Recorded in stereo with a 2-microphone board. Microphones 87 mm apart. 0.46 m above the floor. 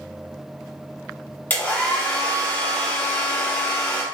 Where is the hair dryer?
25° left (ahead or behind), 1.6 m.